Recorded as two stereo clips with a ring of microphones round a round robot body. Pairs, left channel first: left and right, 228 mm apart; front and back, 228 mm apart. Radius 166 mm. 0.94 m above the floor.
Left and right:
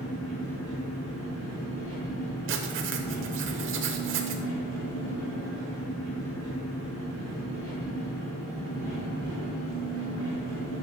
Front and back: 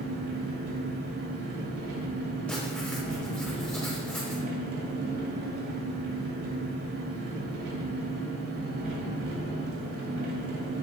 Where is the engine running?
155° left, 3 m.